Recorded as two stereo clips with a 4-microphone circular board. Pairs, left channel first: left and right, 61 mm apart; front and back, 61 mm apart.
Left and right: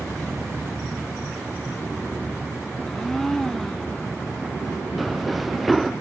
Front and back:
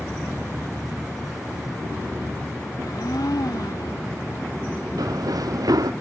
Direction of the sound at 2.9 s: 5° left.